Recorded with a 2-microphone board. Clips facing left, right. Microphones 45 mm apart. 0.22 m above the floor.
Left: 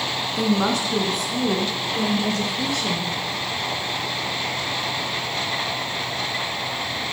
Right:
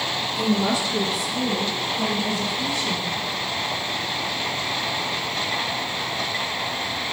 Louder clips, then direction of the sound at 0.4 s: Left 1 dB; 55° left (ahead or behind).